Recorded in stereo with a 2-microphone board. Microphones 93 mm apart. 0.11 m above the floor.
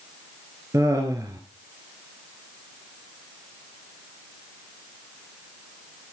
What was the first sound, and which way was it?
Laughter, 35° right (ahead or behind).